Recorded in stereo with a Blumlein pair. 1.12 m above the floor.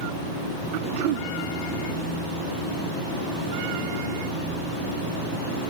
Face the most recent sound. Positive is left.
turn(degrees=-45)